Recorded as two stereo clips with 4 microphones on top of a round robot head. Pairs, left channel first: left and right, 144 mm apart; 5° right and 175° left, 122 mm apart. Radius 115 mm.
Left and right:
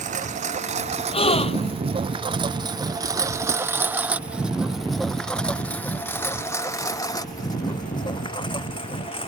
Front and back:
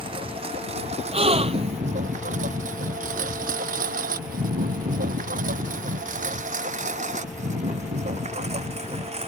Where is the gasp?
140° left.